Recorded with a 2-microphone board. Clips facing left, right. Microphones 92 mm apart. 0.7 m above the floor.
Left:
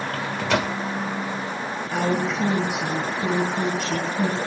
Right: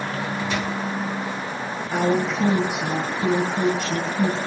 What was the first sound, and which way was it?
A microwave, 75° left (ahead or behind).